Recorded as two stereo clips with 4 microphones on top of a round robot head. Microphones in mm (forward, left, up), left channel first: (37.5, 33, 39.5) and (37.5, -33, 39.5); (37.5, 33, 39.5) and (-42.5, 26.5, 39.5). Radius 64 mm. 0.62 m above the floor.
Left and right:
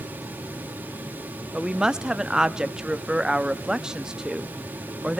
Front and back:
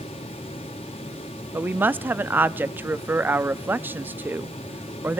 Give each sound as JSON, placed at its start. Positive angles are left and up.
{"t": 1.5, "sound": "a woman speaking", "azimuth_deg": -155, "distance_m": 0.6}